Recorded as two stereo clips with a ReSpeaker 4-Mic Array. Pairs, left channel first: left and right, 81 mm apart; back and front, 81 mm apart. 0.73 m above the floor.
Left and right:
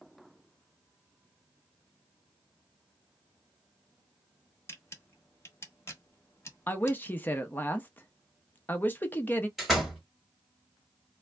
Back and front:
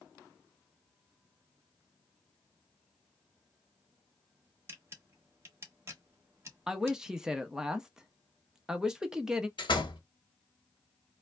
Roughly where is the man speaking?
Left.